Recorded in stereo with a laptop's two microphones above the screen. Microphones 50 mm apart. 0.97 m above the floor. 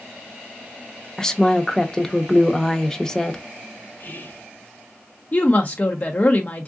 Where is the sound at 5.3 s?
45° left (ahead or behind), 0.5 m.